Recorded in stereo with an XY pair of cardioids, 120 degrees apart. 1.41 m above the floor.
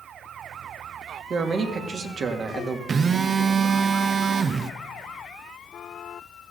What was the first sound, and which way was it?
A man speaking, 40° right.